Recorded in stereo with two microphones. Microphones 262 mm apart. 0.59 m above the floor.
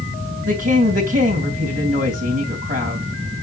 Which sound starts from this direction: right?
A woman speaking, at 0.5 s.